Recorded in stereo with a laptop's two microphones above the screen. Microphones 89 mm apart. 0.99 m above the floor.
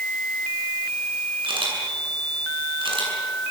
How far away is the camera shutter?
About 7.5 m.